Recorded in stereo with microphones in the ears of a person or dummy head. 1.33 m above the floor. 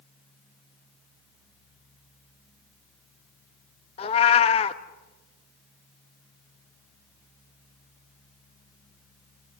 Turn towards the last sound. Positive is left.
turn(degrees=35)  # may be behind; listen again after turning